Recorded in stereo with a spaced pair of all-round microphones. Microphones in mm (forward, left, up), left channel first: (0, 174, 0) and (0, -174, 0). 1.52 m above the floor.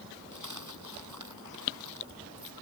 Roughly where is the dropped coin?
Right.